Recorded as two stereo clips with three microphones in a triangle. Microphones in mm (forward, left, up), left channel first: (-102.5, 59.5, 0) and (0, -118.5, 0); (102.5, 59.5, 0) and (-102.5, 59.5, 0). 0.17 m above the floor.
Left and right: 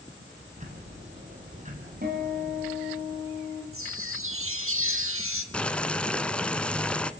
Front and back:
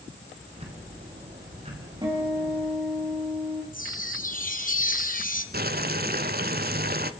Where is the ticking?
120° right, 3.5 m.